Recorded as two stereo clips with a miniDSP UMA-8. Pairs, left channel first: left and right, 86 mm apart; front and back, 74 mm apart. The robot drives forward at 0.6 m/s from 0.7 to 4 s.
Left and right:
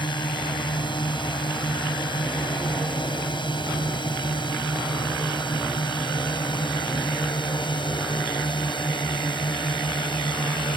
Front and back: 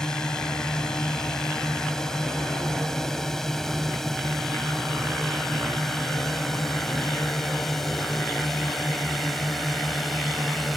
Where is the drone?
80° left; by 10.8 s 90° left.